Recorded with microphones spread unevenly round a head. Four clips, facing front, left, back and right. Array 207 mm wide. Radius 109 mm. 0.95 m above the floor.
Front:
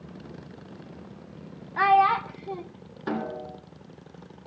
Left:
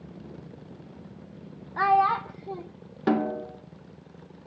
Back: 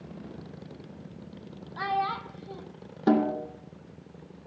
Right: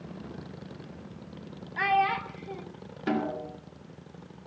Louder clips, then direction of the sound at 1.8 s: Left 4 dB, front 10 dB; 30° left.